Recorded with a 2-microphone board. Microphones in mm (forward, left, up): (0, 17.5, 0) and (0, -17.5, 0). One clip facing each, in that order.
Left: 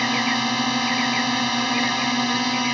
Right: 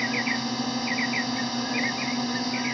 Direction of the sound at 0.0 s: 65° left (ahead or behind).